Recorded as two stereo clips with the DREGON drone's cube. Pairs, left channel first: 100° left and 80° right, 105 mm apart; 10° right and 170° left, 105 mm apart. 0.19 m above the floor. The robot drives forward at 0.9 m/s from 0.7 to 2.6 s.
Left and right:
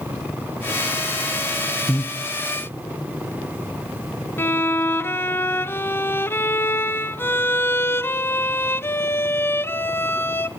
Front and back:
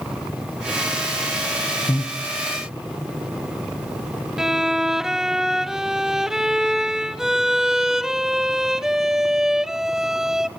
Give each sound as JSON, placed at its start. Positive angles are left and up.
{"t": 1.9, "sound": "breathing", "azimuth_deg": 20, "distance_m": 1.5}
{"t": 4.4, "sound": "a violin", "azimuth_deg": 90, "distance_m": 0.6}